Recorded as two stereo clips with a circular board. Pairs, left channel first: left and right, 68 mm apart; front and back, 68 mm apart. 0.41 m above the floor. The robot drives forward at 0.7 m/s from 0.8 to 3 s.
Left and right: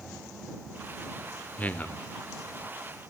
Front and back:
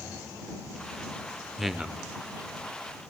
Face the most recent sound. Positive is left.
turn(degrees=165)